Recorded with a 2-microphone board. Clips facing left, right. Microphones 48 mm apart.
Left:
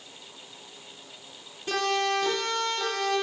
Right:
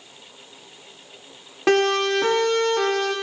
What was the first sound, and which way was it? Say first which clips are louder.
A siren: right 8 dB; 75° right (ahead or behind).